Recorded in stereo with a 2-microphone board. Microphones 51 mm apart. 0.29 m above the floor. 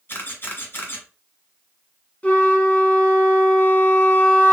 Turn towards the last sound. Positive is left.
turn(degrees=30)  # may be behind; listen again after turning